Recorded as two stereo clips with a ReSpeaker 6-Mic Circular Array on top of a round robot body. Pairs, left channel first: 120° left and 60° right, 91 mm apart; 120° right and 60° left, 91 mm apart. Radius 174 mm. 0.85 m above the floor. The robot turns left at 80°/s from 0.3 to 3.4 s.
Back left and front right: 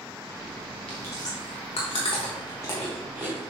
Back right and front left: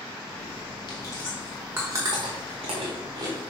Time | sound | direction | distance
0.9 | chewing | 160° right | 0.9 m